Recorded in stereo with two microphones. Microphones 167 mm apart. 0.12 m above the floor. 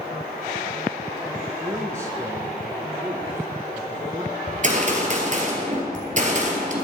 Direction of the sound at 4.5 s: 50° right (ahead or behind).